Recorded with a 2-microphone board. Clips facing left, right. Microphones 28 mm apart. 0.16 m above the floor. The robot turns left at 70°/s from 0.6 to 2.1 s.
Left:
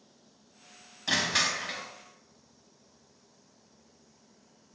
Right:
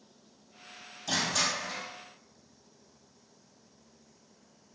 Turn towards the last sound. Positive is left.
turn(degrees=50)